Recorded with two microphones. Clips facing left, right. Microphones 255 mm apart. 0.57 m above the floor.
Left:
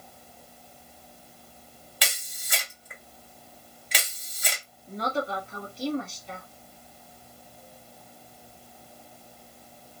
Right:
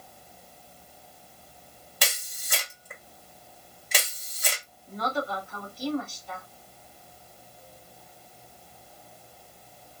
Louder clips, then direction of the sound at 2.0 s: Right 3 dB; 50° right (ahead or behind).